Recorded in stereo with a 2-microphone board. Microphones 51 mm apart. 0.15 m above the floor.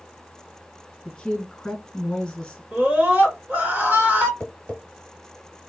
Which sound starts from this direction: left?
Tapping, at 4.4 s.